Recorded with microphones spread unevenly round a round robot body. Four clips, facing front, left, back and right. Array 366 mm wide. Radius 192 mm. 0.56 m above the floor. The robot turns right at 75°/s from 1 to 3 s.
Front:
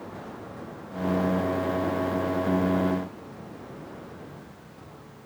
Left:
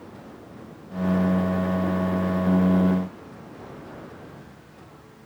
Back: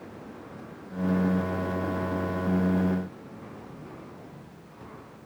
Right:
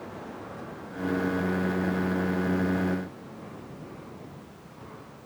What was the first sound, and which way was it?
Only background noise.